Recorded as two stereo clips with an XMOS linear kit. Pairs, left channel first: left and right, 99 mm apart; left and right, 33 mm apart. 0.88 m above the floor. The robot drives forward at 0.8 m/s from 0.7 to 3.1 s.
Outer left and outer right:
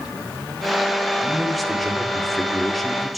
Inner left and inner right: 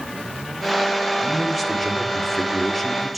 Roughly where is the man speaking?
Centre.